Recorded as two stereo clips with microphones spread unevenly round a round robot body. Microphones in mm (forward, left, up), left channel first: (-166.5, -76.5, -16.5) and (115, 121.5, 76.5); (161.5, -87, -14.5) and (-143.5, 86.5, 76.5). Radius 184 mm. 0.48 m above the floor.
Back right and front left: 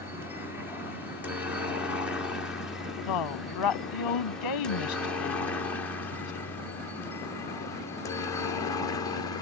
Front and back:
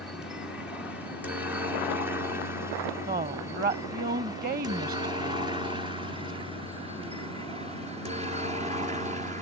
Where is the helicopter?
80° right; by 9.4 s 135° right.